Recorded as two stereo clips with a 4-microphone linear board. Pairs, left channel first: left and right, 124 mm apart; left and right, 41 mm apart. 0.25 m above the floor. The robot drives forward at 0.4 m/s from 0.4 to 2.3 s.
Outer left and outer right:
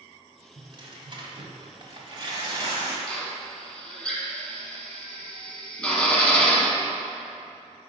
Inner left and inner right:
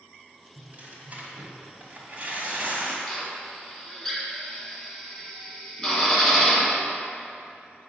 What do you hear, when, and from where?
0.6 s tearing paper: 40° right (ahead or behind), 1.2 m; by 3.0 s 35° right (ahead or behind), 1.4 m
3.1 s a drill: 10° left (ahead or behind), 1.0 m